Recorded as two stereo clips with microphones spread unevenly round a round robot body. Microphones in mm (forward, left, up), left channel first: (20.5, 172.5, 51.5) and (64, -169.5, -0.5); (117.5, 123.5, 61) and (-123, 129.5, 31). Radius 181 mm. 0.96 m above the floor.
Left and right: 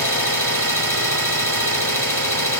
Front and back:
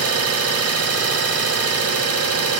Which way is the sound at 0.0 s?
175° right.